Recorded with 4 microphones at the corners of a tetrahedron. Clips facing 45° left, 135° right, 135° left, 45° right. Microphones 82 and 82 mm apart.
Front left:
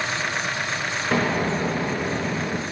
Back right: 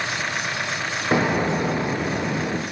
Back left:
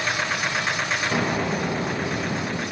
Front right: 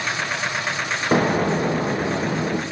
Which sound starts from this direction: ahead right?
An explosion, at 1.1 s.